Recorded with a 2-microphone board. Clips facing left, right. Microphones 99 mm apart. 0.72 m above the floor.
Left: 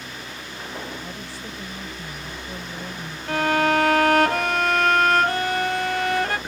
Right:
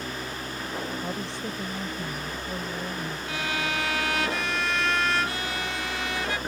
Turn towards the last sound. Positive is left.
turn(degrees=55)  # may be behind; listen again after turning